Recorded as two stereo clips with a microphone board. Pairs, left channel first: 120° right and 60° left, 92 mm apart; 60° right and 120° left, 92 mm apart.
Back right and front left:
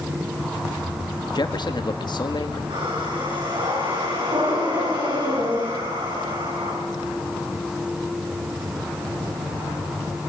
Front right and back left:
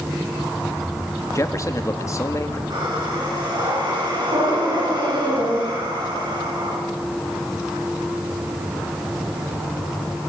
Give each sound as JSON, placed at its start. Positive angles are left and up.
{"t": 1.4, "sound": "a man speaking", "azimuth_deg": -105, "distance_m": 1.5}
{"t": 2.7, "sound": "breathing", "azimuth_deg": 85, "distance_m": 9.5}